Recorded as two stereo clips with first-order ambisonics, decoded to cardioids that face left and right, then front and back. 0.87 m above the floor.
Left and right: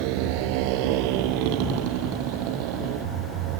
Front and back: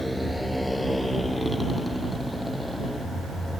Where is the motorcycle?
85° right.